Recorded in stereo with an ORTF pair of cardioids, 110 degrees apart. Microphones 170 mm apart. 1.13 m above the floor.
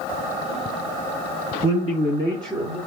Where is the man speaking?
55° left, 1.6 m; by 2.8 s 15° right, 1.4 m.